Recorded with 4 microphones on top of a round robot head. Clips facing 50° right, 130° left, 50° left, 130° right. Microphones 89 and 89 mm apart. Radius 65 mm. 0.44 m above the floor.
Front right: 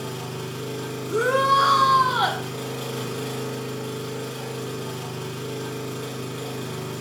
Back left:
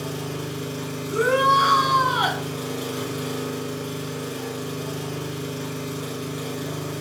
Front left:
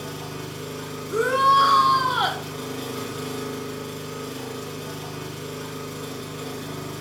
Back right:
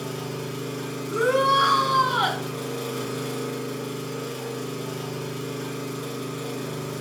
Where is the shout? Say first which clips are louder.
Back left 1 dB, front left 2 dB; 25° right, 1.1 m.